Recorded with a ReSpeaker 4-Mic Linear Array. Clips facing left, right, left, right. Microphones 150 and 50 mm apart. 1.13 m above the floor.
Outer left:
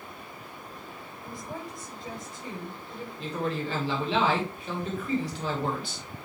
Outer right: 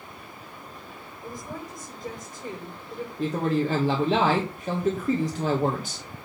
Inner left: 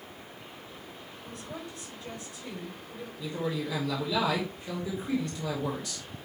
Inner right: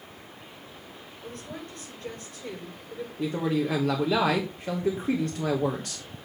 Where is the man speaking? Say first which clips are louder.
Outer right 7 dB, inner right 6 dB; 40° right (ahead or behind), 1.2 m.